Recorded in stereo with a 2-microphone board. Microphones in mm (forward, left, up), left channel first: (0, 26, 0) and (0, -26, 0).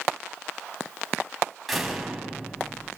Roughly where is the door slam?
Centre.